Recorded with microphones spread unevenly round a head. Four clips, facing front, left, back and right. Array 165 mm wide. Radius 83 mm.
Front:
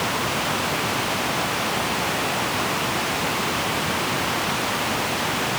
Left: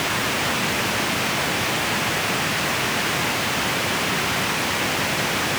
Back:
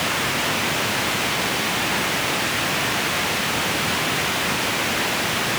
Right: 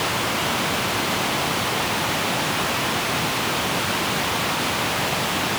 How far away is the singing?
No singing in this recording.